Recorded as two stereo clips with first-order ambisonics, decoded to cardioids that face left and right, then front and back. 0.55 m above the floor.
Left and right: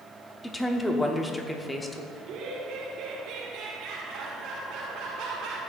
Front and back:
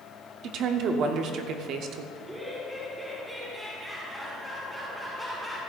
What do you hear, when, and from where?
0.4 s a woman speaking: 170° left, 0.9 m
2.1 s laughter: 95° right, 1.7 m